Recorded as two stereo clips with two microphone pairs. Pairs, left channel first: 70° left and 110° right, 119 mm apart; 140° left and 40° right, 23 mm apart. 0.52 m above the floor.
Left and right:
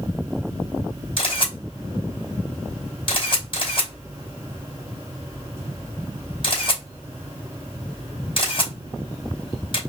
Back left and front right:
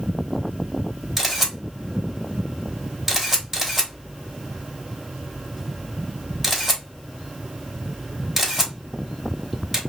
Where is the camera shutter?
40° left, 2 m.